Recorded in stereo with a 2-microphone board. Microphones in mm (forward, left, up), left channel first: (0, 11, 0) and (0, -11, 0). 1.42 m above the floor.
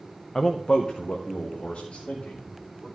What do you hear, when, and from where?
0.3 s a man speaking: 20° left (ahead or behind), 0.5 m; by 2.9 s 70° left (ahead or behind), 3 m